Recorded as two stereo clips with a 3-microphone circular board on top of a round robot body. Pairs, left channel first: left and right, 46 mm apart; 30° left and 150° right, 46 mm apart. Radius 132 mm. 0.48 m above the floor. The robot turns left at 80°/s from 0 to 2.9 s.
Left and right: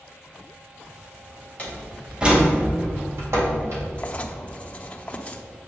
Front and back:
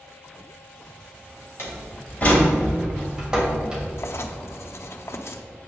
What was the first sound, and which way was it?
A door slam, 30° left.